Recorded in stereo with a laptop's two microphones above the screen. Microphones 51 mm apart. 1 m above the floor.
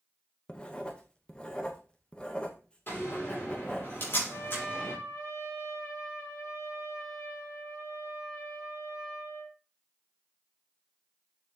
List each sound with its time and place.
0.5 s writing: 20° left (ahead or behind), 0.8 m
2.9 s a door slam: 45° left (ahead or behind), 2.5 m
4.3 s a trumpet: 85° left, 2 m